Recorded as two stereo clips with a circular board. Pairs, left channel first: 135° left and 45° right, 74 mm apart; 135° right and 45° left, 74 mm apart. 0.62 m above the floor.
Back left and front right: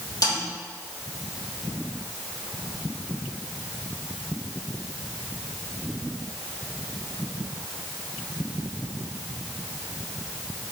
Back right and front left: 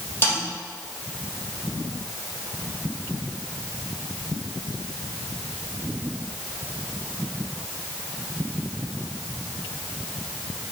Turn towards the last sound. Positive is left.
turn(degrees=165)